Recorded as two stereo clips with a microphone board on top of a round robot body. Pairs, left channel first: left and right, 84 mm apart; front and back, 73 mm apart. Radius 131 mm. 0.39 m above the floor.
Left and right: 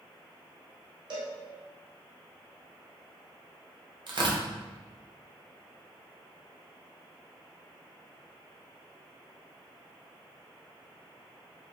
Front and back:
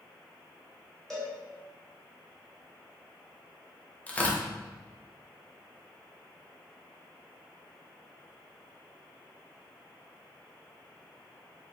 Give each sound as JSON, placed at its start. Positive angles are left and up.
{"t": 1.1, "sound": "a cowbell", "azimuth_deg": -85, "distance_m": 1.0}
{"t": 4.1, "sound": "tearing paper", "azimuth_deg": -70, "distance_m": 0.6}